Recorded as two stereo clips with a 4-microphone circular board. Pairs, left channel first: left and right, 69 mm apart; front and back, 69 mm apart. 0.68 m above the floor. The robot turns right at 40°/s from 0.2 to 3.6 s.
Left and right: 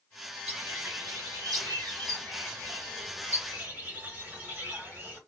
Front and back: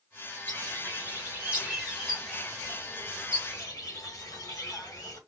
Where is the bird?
155° right, 1.9 m; by 5.2 s 30° right, 1.9 m.